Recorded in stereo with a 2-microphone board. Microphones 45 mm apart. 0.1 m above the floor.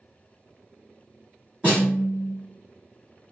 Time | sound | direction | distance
1.6 | a snare drum | 25° right (ahead or behind) | 1.5 m